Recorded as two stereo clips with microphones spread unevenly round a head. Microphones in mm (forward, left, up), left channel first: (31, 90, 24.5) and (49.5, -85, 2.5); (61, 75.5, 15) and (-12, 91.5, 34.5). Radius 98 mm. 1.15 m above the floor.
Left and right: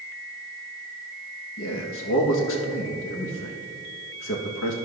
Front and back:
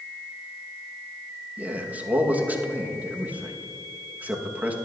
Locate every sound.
1.6 s a man speaking: 95° left, 1.5 m